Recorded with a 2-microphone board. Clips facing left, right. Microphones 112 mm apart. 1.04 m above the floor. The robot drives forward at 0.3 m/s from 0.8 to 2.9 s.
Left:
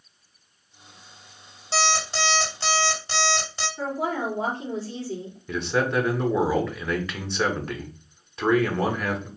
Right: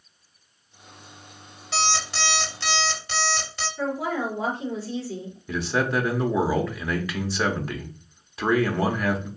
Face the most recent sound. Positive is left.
turn(degrees=0)  # may be behind; listen again after turning